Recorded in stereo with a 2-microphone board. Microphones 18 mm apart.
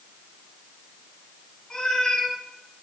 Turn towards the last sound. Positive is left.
turn(degrees=40)  # may be behind; listen again after turning